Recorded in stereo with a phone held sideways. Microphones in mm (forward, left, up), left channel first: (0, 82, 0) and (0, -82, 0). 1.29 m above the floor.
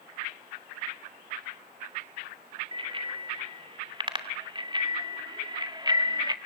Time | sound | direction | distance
2.7 | a bicycle bell | 35° right (ahead or behind) | 3.5 m